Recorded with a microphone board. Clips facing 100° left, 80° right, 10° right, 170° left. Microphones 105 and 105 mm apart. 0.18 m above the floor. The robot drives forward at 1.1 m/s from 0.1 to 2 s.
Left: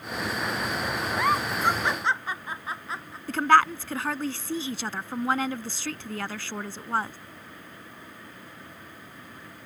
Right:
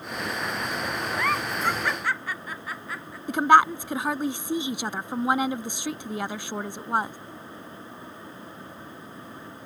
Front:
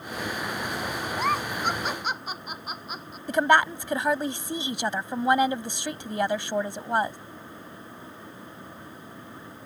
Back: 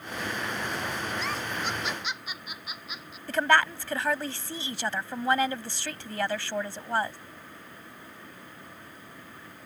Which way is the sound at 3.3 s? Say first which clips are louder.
Right 2 dB, front 3 dB; 45° right.